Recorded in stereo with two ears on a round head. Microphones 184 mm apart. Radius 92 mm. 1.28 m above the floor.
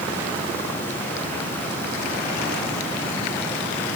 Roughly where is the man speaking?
I don't hear a man speaking.